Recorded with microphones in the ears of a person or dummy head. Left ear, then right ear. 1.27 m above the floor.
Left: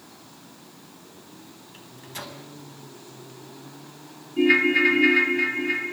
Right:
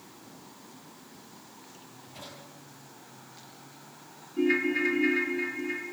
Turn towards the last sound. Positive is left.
turn(degrees=20)  # may be behind; listen again after turning